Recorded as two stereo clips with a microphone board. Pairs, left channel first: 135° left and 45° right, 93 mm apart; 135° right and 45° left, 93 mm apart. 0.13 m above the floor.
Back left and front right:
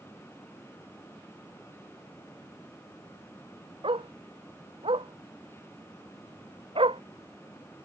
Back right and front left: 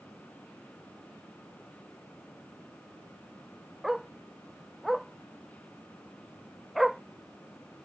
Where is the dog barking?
40° right.